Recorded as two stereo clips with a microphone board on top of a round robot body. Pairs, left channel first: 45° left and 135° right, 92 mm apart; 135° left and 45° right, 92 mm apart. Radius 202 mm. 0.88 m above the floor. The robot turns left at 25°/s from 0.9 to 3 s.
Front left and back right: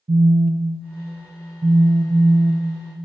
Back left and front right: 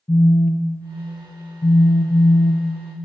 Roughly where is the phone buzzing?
Behind right.